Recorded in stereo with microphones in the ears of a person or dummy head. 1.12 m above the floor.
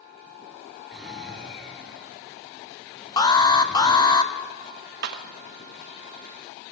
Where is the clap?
55° right (ahead or behind), 0.9 m.